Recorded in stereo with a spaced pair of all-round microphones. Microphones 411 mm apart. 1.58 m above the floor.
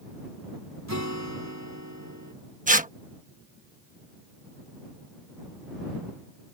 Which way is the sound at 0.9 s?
40° right (ahead or behind).